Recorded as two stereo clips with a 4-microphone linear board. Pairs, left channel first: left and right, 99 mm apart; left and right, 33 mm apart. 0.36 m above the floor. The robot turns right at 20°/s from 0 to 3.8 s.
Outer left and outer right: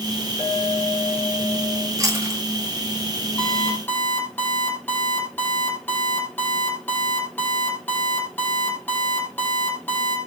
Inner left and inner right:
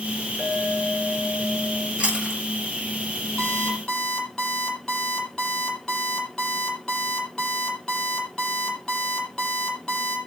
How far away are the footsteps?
No footsteps in this recording.